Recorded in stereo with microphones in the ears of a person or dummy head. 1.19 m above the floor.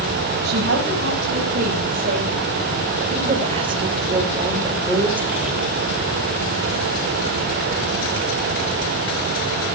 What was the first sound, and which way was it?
A woman speaking, 60° right (ahead or behind).